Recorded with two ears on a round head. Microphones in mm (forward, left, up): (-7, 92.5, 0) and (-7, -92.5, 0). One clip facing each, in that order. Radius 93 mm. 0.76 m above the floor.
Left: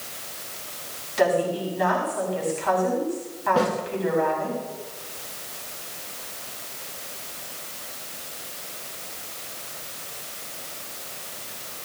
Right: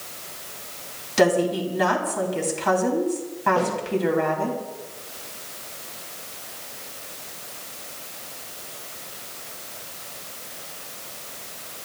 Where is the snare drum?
30° left (ahead or behind), 10 m.